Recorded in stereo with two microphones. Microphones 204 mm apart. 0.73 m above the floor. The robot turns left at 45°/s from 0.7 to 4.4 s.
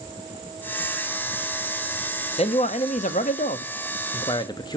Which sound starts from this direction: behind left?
A man speaking, at 2.4 s.